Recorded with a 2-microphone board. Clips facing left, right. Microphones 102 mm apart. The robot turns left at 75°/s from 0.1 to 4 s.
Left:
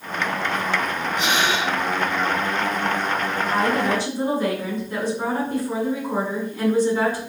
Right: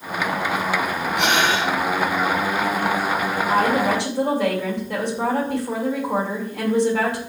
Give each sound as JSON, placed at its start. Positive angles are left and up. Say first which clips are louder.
{"t": 1.2, "sound": "breathing", "louder": "right 3 dB", "azimuth_deg": -105, "distance_m": 1.9}
{"t": 3.5, "sound": "a woman speaking", "louder": "right 2 dB", "azimuth_deg": -50, "distance_m": 3.5}